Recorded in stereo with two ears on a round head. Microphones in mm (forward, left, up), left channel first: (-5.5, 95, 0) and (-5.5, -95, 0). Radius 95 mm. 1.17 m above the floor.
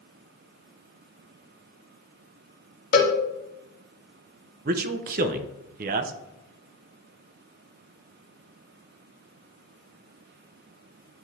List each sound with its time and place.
2.9 s a cowbell: 40° left (ahead or behind), 1.4 m
4.7 s a man speaking: 45° right (ahead or behind), 0.6 m